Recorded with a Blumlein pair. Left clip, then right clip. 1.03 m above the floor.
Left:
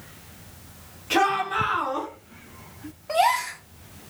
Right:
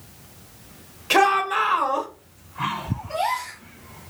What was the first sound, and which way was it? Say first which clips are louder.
A shout: right 4 dB; 65° right.